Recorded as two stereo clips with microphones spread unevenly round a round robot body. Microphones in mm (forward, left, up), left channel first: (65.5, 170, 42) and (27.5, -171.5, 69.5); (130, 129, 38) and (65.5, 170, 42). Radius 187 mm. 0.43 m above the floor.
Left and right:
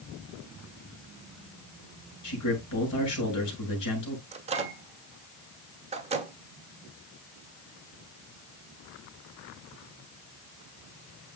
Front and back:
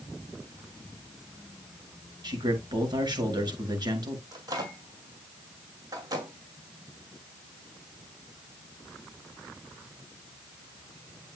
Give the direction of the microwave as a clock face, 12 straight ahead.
6 o'clock.